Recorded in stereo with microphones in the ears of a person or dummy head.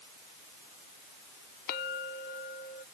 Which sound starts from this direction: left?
A clink, at 1.7 s.